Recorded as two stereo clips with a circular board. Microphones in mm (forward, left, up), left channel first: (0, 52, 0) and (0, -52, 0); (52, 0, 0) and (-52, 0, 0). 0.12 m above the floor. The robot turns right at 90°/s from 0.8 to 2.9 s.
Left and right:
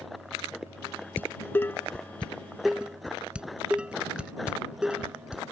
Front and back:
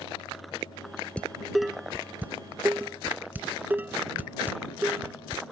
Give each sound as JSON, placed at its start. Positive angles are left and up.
{"t": 1.2, "sound": "dishes clattering", "azimuth_deg": 55}